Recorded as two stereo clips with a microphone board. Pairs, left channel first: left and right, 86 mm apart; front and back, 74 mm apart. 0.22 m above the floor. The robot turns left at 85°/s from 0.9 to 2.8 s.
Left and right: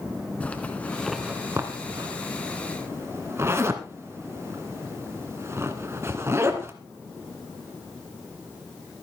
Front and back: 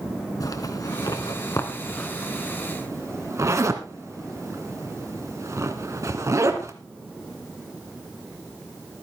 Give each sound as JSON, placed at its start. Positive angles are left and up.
{"t": 0.4, "sound": "a zipper", "azimuth_deg": 20, "distance_m": 1.7}